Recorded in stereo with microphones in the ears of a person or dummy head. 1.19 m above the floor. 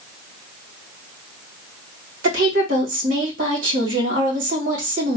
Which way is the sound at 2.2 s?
65° right (ahead or behind).